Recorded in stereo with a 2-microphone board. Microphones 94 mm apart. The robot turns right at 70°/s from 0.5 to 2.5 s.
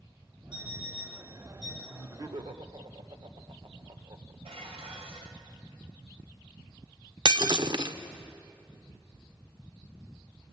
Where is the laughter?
160° right, 1.6 m; by 4.3 s 115° right, 1.6 m.